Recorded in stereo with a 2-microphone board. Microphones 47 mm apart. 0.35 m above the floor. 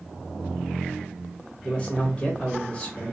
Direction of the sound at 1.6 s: 25° left (ahead or behind).